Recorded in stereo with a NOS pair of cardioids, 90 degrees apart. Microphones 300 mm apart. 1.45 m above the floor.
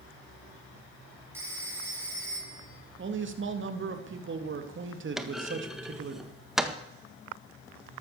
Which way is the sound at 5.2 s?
Straight ahead.